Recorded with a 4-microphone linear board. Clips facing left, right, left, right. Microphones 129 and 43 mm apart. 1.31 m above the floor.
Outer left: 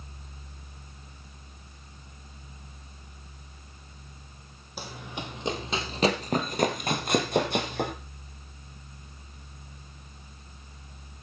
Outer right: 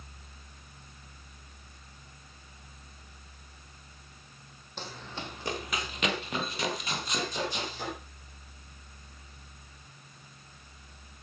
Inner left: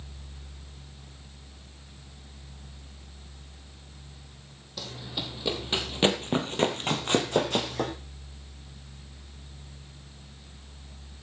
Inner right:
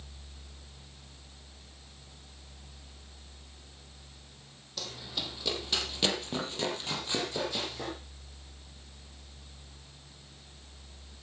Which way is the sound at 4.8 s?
10° left (ahead or behind).